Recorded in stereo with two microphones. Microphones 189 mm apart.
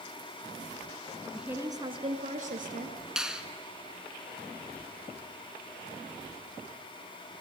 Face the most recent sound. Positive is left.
turn(degrees=-5)  # may be behind; listen again after turning